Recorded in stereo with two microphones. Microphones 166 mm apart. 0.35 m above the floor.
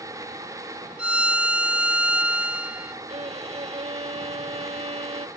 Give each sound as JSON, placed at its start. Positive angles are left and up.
{"t": 1.0, "sound": "a violin", "side_deg": -5}
{"t": 3.1, "sound": "a violin", "side_deg": -40}